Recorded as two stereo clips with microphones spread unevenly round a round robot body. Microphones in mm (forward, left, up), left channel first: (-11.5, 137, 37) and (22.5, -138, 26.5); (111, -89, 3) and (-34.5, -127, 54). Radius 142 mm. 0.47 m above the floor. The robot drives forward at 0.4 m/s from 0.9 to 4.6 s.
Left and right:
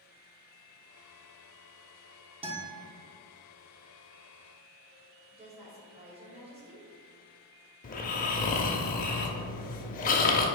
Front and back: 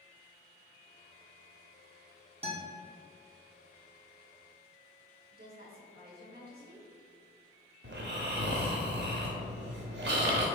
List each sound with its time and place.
2.4 s a guitar: 125° right, 1.5 m; by 2.8 s 130° right, 1.5 m
5.3 s a woman speaking: 150° right, 1.8 m
7.8 s snoring: 160° left, 0.7 m